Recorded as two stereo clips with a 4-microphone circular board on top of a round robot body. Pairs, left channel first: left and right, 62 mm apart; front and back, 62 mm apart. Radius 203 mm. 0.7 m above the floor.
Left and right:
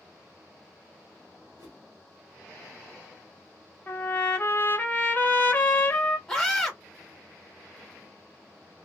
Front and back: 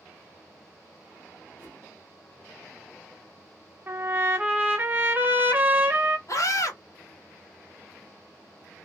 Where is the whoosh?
110° right, 0.6 m.